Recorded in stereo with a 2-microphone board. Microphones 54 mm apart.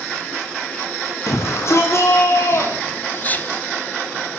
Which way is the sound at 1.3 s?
55° left (ahead or behind).